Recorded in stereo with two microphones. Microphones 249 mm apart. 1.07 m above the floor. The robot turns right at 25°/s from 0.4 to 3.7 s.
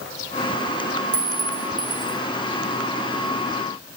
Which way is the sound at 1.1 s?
60° right (ahead or behind).